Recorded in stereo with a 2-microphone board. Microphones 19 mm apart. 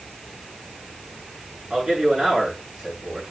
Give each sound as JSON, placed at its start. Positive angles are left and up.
{"t": 1.7, "sound": "a man speaking", "side_deg": -55, "distance_m": 8.0}